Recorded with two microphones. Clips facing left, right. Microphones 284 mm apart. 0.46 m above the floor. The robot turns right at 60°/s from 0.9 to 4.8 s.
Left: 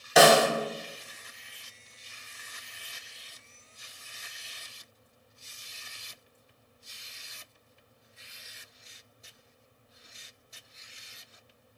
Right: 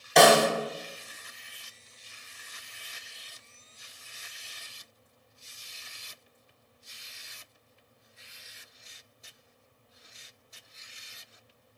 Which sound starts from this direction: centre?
A snare drum, at 0.2 s.